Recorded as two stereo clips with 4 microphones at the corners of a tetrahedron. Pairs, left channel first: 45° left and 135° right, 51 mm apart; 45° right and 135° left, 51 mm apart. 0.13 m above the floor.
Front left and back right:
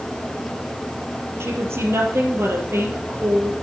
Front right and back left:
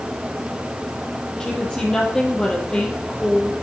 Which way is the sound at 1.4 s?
115° right.